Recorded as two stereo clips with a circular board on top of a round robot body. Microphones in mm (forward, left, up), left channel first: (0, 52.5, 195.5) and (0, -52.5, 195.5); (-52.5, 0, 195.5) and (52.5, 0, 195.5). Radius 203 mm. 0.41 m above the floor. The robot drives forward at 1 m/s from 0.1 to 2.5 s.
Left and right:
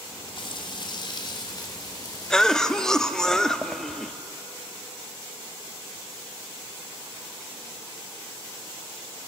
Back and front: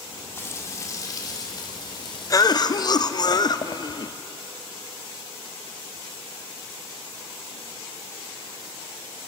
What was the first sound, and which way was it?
Frying, 120° left.